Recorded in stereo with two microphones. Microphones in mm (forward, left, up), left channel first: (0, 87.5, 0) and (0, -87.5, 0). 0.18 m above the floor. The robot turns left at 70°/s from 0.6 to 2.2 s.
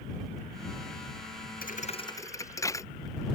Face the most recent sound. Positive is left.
turn(degrees=20)